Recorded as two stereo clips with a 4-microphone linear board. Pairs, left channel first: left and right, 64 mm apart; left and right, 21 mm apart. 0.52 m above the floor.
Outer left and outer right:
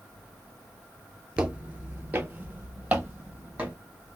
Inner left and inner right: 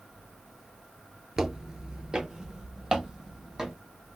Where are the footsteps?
20° right (ahead or behind), 0.5 m.